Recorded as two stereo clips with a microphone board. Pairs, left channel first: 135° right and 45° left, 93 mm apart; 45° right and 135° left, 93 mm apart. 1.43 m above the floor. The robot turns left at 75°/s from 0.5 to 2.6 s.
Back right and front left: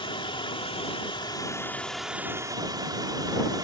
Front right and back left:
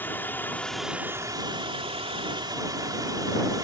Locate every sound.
0.0 s running water: 115° right; by 3.6 s 90° left